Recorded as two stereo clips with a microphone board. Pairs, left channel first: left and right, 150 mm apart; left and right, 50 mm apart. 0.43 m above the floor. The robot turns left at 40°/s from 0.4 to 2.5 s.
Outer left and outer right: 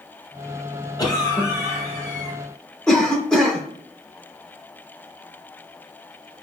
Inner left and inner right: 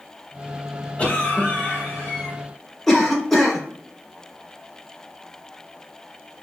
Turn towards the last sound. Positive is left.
turn(degrees=5)  # may be behind; listen again after turning